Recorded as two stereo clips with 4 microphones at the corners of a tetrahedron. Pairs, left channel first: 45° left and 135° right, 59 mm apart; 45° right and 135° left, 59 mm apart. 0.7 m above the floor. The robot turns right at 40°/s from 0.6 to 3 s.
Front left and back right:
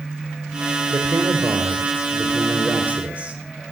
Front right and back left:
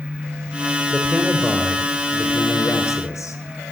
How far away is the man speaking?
About 2.5 m.